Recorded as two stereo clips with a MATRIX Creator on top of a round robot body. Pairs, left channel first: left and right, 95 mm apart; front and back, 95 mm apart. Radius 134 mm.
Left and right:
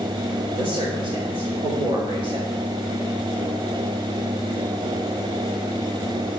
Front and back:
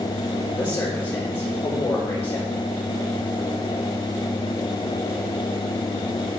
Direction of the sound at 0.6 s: 70° right.